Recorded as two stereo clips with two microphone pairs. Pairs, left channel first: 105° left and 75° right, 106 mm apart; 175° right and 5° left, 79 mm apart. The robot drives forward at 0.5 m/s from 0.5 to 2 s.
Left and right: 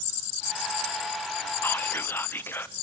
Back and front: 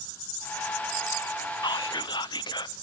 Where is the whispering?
170° left, 0.8 m; by 2.7 s 175° left, 1.0 m.